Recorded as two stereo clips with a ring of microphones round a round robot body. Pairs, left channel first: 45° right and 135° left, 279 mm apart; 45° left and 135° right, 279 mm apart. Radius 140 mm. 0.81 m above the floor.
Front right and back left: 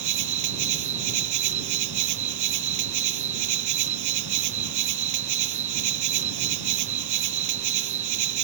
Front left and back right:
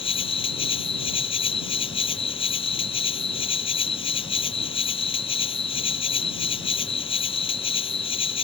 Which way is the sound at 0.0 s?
115° left.